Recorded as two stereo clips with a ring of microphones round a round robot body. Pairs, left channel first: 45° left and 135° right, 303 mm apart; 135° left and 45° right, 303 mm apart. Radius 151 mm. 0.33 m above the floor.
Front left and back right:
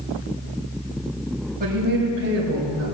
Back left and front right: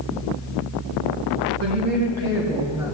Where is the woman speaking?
80° right, 2 m; by 3.0 s 125° right, 2 m.